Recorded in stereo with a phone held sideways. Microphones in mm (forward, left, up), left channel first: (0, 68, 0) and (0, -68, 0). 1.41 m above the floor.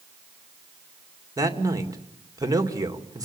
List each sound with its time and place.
1.4 s a man speaking: 25° right (ahead or behind), 2.5 m